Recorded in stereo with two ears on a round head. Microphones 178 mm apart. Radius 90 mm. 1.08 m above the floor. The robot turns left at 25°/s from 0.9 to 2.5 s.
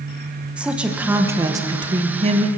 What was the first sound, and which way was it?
A woman speaking, 10° right.